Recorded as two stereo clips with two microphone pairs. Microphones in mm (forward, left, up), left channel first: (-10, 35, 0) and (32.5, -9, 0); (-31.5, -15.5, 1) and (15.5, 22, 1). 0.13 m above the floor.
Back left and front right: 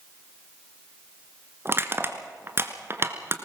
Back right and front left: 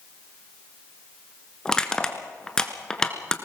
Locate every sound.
1.6 s crushing: 65° right, 1.5 m